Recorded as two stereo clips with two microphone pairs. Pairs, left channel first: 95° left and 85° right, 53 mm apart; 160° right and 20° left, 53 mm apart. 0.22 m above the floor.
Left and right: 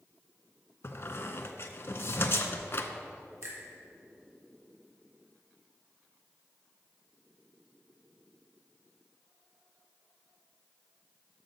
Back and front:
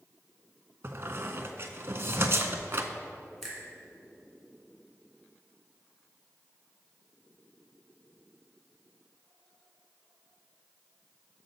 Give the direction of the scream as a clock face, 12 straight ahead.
I don't hear a scream.